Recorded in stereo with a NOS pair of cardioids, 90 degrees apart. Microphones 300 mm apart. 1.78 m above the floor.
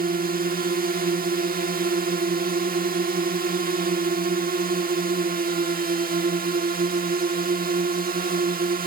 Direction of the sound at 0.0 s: 30° right.